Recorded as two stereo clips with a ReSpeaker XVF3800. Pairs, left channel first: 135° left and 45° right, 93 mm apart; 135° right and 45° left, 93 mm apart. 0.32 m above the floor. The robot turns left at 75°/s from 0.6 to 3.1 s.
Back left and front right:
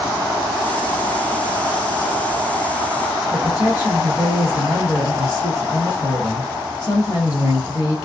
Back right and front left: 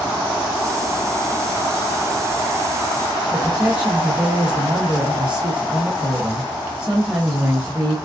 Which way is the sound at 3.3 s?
115° left.